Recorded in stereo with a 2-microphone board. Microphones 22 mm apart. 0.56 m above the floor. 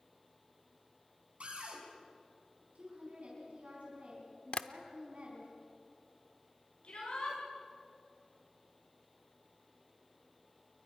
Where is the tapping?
55° left (ahead or behind), 0.7 m.